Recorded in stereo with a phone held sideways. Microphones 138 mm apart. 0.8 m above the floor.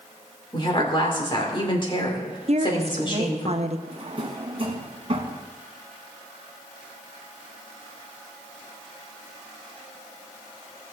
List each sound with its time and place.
0.5 s a woman speaking: 35° left (ahead or behind), 2.5 m
2.5 s a woman speaking: 50° right (ahead or behind), 0.8 m
3.9 s a drawer: 45° right (ahead or behind), 1.6 m